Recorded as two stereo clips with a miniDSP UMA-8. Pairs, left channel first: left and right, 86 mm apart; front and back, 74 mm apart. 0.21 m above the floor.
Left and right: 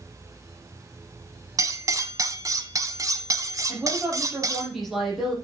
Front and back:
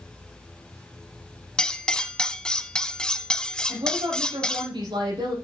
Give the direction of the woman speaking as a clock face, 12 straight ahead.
6 o'clock.